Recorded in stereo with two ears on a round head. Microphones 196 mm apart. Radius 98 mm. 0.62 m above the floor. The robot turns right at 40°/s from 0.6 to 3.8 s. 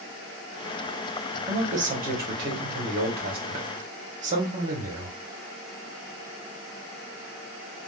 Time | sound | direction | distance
1.5 | a man speaking | 145° right | 1.1 m